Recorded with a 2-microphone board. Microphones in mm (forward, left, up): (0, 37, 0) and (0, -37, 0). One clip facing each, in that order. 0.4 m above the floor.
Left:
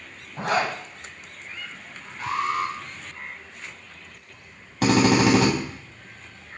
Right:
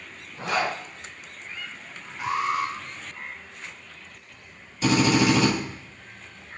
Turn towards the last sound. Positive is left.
turn(degrees=70)  # may be behind; listen again after turning